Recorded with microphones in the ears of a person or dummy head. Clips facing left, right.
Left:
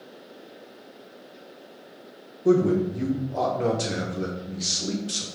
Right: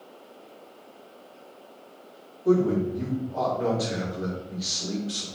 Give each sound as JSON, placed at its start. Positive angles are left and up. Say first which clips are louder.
{"t": 2.5, "sound": "a man speaking", "louder": "left 2 dB", "side_deg": 35, "distance_m": 0.8}